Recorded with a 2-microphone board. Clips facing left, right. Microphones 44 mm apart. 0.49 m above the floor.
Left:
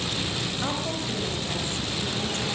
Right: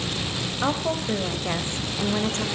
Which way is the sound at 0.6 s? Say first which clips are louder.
Right 8 dB; 25° right (ahead or behind).